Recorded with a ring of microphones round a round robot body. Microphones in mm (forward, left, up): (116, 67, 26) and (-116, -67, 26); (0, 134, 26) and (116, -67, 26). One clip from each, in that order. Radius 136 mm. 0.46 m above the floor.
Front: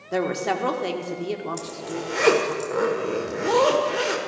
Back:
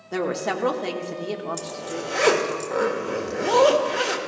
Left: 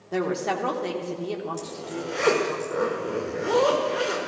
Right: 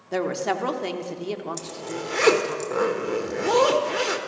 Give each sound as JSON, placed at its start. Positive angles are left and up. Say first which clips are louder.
{"t": 0.1, "sound": "a woman speaking", "louder": "front 1 dB, right 1 dB", "azimuth_deg": -65, "distance_m": 1.2}
{"t": 1.6, "sound": "a zipper", "louder": "back 1 dB, right 1 dB", "azimuth_deg": -70, "distance_m": 1.4}